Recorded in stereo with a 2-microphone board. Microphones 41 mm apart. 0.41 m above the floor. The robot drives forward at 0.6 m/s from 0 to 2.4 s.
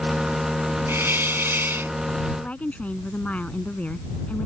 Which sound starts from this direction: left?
A woman speaking, at 2.4 s.